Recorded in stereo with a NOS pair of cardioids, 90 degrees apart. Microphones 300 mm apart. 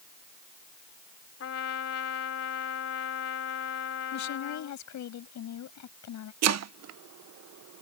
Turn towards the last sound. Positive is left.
turn(degrees=-60)